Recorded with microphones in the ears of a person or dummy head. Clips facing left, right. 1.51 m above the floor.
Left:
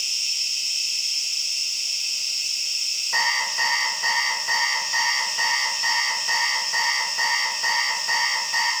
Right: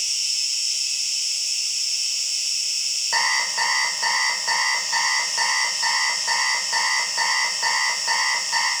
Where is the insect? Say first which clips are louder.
Even; 55° right (ahead or behind), 2 m.